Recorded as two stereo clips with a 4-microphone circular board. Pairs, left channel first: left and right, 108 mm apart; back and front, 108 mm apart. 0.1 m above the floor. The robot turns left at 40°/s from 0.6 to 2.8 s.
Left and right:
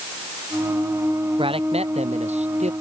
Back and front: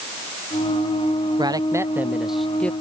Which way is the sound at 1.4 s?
50° right.